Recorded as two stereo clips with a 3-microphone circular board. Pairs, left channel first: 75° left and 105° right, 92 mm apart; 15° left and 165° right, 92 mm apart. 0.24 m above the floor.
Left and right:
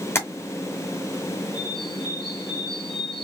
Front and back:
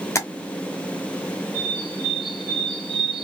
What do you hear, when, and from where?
0.1 s tapping: 35° left, 1.2 m
1.5 s a bird: 55° left, 3 m